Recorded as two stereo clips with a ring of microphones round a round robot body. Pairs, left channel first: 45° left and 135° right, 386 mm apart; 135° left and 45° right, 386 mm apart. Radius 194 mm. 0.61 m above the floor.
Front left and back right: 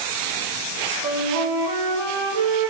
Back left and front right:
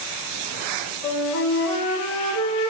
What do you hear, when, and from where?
1.0 s a flute: 175° right, 2.5 m